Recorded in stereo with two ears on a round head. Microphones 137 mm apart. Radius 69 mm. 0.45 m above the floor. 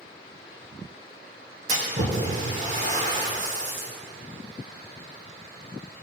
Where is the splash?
50° right (ahead or behind), 4.5 m.